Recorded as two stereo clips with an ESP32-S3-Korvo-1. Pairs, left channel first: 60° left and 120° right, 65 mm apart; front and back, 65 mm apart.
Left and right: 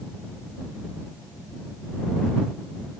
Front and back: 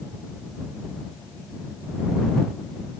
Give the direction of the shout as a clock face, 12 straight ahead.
I don't hear a shout.